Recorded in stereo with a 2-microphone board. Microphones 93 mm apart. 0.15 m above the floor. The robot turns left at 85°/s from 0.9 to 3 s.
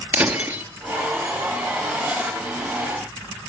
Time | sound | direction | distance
0.1 | breaking glass | 25° right (ahead or behind) | 1.8 m